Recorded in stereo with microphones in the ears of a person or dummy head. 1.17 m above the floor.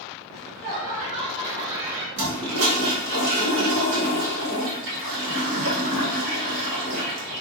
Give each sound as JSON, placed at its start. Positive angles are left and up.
{"t": 0.3, "sound": "laughter", "side_deg": -65, "distance_m": 1.5}
{"t": 2.2, "sound": "a toilet flushing", "side_deg": -60, "distance_m": 1.2}